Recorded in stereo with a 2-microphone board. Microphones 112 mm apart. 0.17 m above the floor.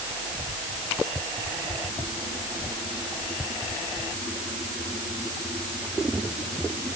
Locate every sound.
Only background noise.